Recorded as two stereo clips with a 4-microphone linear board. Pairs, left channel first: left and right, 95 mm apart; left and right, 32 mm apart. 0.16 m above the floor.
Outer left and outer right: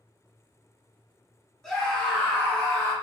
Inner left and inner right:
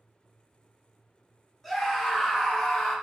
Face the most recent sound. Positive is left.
turn(degrees=25)  # may be behind; listen again after turning